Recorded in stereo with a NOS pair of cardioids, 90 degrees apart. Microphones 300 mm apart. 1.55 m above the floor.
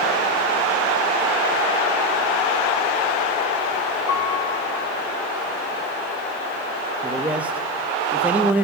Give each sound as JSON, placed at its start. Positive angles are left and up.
{"t": 4.1, "sound": "a piano", "azimuth_deg": 70, "distance_m": 3.0}
{"t": 7.0, "sound": "a man speaking", "azimuth_deg": -5, "distance_m": 2.0}